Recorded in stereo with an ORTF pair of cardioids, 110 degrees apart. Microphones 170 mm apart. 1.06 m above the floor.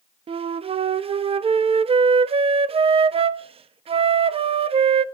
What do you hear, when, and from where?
0.3 s a flute: 35° right, 0.9 m